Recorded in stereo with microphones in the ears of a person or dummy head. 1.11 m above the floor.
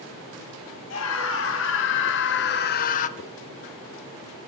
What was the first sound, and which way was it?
A scream, 70° left (ahead or behind).